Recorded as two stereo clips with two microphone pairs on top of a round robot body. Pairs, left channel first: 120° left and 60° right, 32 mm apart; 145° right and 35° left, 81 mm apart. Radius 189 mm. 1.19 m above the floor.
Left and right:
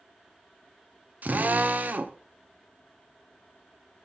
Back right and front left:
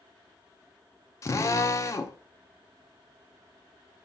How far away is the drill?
About 0.5 m.